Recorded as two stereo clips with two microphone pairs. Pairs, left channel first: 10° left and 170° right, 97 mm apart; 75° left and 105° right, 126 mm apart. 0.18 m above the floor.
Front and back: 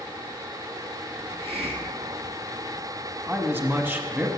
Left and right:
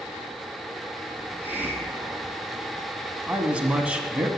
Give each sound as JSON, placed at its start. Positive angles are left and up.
{"t": 1.2, "sound": "a hiss", "azimuth_deg": 175, "distance_m": 1.1}
{"t": 3.3, "sound": "a man speaking", "azimuth_deg": -175, "distance_m": 1.1}